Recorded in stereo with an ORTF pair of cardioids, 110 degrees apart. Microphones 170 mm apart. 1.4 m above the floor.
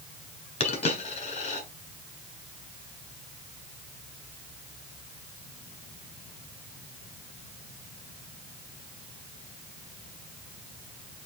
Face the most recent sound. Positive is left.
turn(degrees=40)